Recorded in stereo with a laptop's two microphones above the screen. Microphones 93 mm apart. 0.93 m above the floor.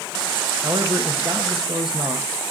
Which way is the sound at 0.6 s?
60° right (ahead or behind).